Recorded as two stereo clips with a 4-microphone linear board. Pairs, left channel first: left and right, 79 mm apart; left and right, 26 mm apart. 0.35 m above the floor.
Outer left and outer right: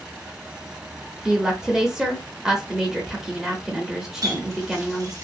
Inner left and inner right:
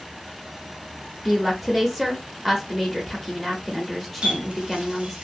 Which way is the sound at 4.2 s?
45° right (ahead or behind).